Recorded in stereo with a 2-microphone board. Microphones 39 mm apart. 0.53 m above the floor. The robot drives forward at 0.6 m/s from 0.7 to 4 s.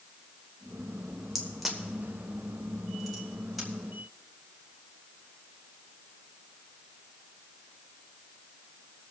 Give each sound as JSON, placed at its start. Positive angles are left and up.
{"t": 1.4, "sound": "a crack", "side_deg": 0, "distance_m": 1.4}